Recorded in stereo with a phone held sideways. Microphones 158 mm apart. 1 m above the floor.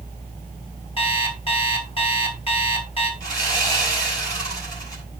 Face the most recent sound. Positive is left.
turn(degrees=20)  # may be behind; listen again after turning